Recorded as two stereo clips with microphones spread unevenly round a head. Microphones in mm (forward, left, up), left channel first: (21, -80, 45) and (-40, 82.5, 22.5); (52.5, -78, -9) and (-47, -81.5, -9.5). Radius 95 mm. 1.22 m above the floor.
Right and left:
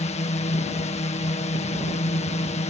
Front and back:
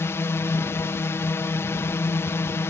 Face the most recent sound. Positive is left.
turn(degrees=-40)